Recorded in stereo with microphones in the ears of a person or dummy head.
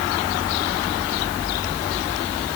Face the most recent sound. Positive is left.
No sound to turn to.